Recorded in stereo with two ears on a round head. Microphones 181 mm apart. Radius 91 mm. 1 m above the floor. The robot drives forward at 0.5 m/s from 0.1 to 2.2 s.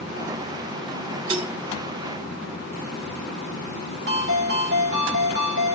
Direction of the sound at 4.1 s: 60° right (ahead or behind).